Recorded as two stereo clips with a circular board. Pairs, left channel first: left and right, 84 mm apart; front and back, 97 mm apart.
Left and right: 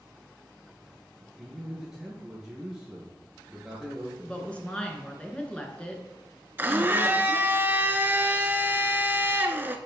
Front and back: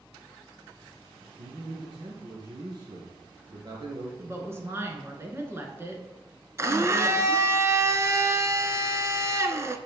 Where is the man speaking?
175° right, 1.8 m.